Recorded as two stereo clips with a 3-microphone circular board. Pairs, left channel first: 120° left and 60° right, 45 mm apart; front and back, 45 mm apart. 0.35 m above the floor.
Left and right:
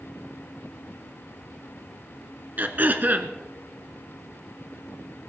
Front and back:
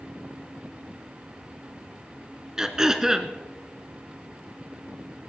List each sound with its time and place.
2.6 s throat clearing: 105° right, 1.2 m